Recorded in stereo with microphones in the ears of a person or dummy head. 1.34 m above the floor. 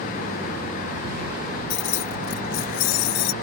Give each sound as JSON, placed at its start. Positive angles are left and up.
{"t": 1.7, "sound": "keys jangling", "side_deg": 65}